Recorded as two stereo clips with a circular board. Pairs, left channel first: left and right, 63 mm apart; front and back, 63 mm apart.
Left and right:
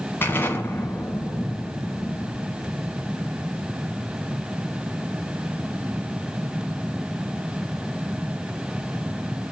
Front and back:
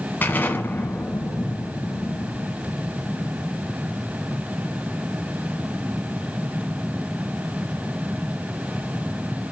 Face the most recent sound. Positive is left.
turn(degrees=50)